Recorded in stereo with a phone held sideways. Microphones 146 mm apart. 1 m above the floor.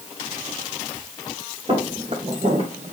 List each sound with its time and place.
1.7 s footsteps: 45° right (ahead or behind), 2 m; by 2.9 s 55° right (ahead or behind), 1.7 m